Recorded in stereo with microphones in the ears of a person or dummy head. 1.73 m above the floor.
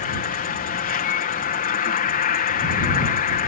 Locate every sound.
0.0 s an insect: 45° left (ahead or behind)